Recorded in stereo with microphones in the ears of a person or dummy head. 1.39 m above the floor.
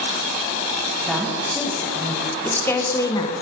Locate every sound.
1.1 s a woman speaking: 10° right (ahead or behind), 2 m; by 3.3 s 20° left (ahead or behind), 1.1 m